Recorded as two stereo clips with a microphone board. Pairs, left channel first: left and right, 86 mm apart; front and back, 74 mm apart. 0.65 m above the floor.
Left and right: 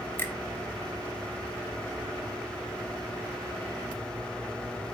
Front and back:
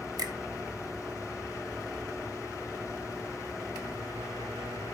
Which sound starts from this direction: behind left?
A finger snap, at 0.2 s.